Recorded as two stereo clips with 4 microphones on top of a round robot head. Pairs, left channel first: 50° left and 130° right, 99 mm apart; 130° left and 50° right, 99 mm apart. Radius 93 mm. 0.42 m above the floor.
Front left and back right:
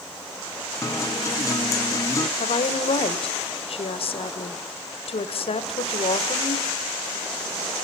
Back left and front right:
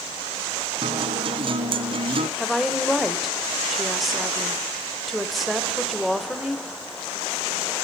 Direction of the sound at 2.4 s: 40° left.